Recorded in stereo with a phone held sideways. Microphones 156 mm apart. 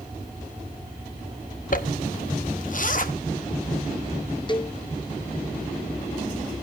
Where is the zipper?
60° left (ahead or behind), 0.9 m.